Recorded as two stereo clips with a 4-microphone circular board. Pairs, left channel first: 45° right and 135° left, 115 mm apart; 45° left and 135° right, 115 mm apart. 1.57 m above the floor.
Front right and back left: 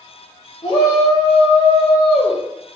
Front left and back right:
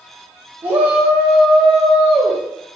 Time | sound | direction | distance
0.6 | a shout | 70° right | 1.4 m